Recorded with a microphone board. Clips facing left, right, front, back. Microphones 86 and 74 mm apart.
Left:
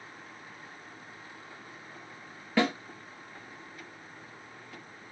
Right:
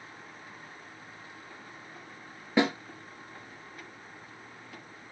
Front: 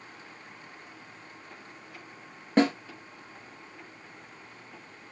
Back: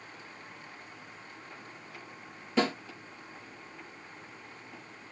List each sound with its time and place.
2.6 s a snare drum: 20° right, 2.5 m